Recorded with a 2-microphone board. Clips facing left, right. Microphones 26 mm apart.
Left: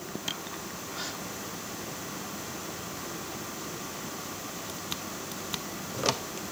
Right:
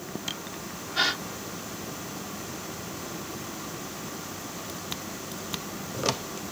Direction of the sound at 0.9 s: 65° right (ahead or behind).